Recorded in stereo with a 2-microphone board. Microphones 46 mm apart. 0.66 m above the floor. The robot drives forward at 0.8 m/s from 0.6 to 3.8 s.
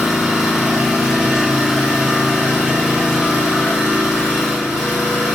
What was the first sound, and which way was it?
An engine running, 5° right (ahead or behind).